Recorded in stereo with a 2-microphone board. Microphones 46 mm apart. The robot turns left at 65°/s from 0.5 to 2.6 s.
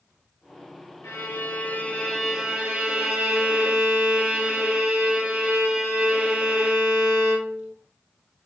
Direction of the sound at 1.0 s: 80° left.